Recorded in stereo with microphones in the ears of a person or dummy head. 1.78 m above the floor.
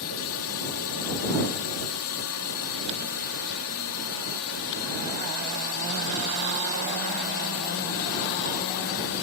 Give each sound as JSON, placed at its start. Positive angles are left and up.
{"t": 0.0, "sound": "a drone", "side_deg": 75}